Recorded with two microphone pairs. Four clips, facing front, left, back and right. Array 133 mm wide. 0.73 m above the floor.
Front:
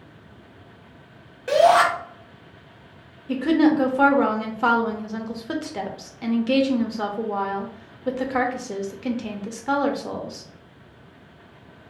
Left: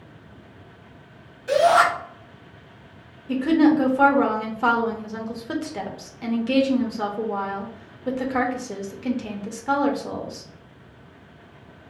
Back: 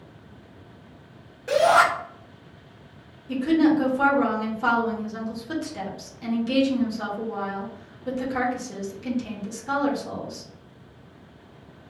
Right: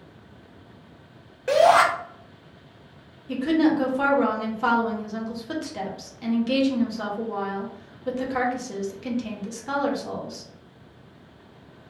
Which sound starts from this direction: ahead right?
A shout, at 1.5 s.